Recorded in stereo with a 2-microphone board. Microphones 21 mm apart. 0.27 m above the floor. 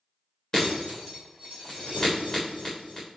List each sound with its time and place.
0.5 s breaking glass: 30° left (ahead or behind), 4 m